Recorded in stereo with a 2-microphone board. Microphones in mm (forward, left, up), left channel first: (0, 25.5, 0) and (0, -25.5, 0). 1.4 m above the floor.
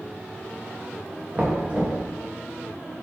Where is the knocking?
30° right (ahead or behind), 1.6 m.